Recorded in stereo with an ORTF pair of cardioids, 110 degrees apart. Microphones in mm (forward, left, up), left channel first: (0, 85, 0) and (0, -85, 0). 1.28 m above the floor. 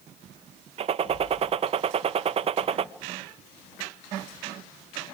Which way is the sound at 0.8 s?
35° right.